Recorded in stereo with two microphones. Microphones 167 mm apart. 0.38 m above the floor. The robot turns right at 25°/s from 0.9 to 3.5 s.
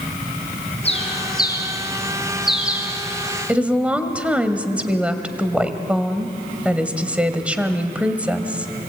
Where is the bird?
40° left (ahead or behind), 3.5 m; by 2.9 s 10° right (ahead or behind), 3.5 m.